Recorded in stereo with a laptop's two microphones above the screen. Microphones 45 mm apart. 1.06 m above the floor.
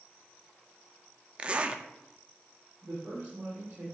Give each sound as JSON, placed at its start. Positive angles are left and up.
{"t": 1.4, "sound": "a zipper", "side_deg": -25, "distance_m": 0.6}
{"t": 2.8, "sound": "a woman speaking", "side_deg": -50, "distance_m": 3.0}